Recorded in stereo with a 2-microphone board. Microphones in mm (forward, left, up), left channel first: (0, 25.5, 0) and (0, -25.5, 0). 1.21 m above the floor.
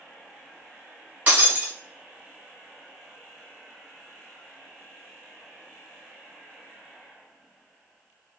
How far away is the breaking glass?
About 1.9 m.